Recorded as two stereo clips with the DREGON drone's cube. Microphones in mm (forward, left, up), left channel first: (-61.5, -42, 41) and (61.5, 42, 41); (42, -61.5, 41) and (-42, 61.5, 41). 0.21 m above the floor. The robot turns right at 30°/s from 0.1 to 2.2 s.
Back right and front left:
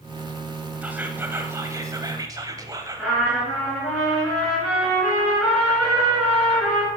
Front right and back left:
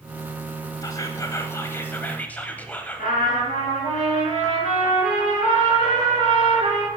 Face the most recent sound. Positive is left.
turn(degrees=-60)